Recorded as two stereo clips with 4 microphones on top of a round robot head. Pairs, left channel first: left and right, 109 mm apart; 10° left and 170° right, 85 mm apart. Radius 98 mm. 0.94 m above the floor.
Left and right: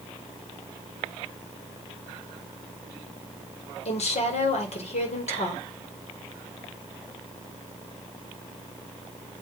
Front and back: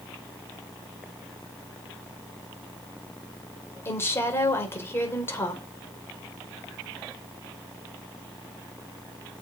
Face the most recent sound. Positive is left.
turn(degrees=70)